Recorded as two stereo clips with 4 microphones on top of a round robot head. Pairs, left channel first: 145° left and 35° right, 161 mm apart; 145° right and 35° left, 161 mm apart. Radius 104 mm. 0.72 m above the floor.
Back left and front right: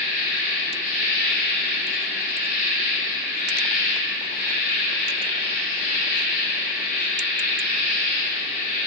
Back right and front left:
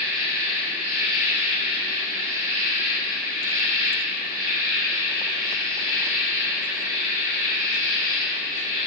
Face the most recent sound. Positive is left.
turn(degrees=105)